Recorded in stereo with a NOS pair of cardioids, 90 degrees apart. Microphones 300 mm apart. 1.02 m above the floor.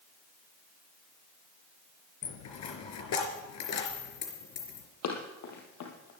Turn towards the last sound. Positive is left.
turn(degrees=70)